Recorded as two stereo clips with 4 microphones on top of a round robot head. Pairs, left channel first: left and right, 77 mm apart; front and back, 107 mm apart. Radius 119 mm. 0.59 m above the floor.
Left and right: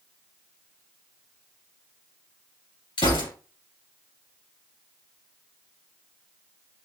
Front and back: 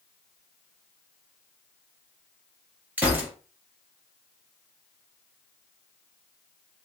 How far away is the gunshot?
About 2.5 m.